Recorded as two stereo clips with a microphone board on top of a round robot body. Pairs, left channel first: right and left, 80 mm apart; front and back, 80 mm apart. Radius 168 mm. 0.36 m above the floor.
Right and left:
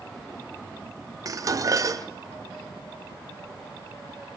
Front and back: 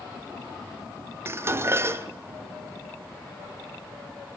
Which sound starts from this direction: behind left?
Dishes clattering, at 1.2 s.